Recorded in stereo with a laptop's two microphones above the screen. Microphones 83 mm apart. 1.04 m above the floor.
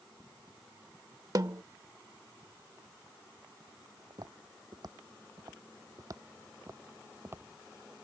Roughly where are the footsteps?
Right.